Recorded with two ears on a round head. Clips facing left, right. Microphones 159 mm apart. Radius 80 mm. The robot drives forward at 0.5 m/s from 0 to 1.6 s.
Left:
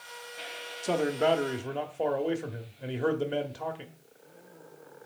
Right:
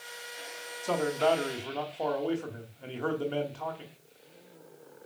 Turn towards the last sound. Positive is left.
turn(degrees=20)  # may be behind; listen again after turning